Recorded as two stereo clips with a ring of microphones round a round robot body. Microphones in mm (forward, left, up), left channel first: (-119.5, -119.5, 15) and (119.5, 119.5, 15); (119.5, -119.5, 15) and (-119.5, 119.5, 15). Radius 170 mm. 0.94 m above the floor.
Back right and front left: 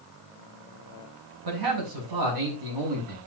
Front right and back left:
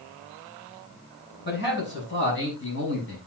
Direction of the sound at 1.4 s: 20° left.